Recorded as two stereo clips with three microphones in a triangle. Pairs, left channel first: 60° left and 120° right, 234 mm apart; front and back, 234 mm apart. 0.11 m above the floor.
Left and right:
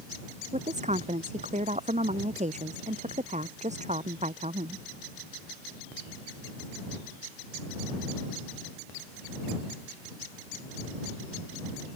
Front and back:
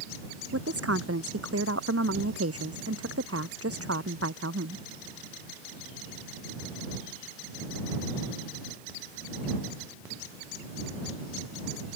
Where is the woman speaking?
Straight behind.